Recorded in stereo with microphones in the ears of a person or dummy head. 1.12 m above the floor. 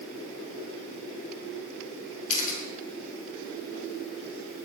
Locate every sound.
2.3 s a camera shutter: 40° left (ahead or behind), 5.5 m